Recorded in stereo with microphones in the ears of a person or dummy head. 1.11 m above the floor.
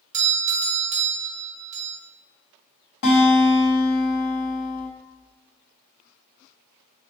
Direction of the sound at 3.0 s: 55° left (ahead or behind).